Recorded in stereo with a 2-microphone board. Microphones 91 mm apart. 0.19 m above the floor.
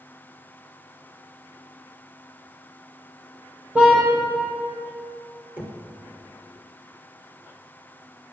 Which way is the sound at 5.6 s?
20° right (ahead or behind).